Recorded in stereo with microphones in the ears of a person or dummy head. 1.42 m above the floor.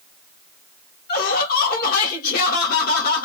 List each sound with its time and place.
1.1 s laughter: 50° left (ahead or behind), 1.6 m